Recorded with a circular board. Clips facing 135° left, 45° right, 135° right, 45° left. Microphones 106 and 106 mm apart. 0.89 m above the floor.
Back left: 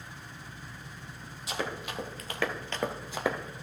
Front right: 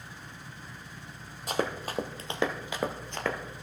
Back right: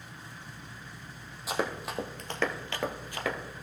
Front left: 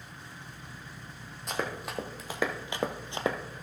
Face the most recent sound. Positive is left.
turn(degrees=70)